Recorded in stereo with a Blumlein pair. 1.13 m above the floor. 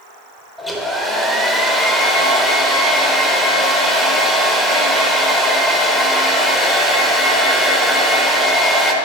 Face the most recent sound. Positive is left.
turn(degrees=0)